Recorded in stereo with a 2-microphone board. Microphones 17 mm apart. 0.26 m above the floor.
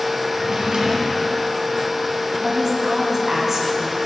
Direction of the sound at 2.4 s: 30° right (ahead or behind).